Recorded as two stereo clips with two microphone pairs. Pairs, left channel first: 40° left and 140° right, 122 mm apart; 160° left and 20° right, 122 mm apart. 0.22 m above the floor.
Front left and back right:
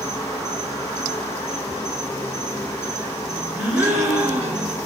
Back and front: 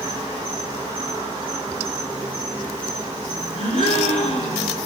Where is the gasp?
150° left, 0.7 m.